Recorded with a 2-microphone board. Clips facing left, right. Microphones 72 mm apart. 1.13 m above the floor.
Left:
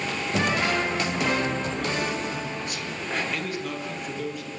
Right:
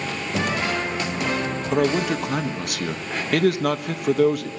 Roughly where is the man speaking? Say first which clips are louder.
Right 7 dB; right.